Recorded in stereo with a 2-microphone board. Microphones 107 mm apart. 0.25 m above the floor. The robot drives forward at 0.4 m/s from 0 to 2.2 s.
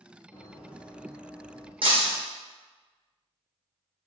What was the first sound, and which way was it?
Running footsteps, 15° left (ahead or behind).